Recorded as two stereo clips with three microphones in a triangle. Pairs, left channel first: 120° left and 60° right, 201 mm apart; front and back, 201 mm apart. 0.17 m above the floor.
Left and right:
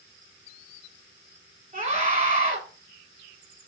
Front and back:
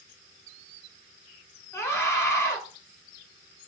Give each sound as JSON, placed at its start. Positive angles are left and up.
{"t": 1.7, "sound": "a scream", "azimuth_deg": -70, "distance_m": 1.5}